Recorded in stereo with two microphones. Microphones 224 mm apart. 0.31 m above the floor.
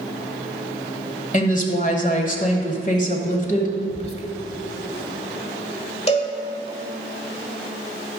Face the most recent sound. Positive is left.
turn(degrees=30)  # may be behind; listen again after turning